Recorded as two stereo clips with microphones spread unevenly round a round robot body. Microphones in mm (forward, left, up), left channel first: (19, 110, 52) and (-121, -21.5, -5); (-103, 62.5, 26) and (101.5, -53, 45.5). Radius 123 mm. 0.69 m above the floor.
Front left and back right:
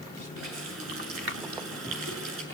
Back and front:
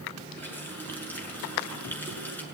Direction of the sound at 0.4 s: 125° right.